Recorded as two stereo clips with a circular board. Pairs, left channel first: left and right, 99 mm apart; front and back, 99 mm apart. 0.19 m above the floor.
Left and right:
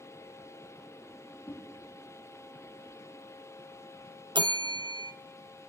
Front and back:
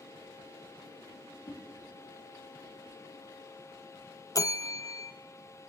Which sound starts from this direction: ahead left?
A whoosh, at 1.5 s.